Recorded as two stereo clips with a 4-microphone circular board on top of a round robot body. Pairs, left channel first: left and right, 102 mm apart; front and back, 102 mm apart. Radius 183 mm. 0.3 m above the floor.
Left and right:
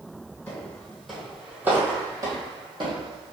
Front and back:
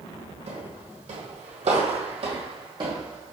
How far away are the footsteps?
About 1.3 m.